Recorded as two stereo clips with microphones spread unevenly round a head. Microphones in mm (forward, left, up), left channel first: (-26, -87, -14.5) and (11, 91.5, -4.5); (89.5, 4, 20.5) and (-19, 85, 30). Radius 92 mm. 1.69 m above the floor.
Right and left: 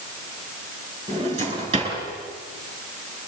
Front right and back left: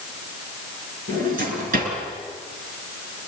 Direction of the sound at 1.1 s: 140° left.